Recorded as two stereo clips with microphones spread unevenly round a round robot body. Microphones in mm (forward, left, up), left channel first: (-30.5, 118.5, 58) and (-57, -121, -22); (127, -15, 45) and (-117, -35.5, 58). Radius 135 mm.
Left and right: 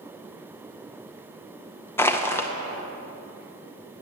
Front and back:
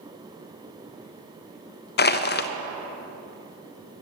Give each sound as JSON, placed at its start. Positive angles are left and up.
{"t": 2.0, "sound": "crushing", "azimuth_deg": -15, "distance_m": 0.5}